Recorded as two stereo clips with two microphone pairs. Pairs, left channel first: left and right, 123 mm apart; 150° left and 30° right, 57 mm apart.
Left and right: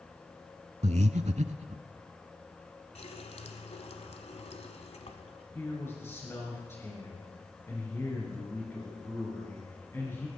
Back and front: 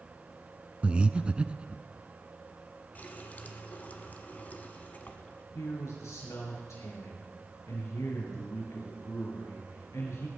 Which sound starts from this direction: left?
A running tap, at 3.0 s.